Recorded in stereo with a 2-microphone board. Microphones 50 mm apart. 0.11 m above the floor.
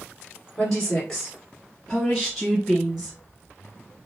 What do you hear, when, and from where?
0.6 s a woman speaking: 10° left (ahead or behind), 1.7 m; by 3.2 s 5° right (ahead or behind), 1.7 m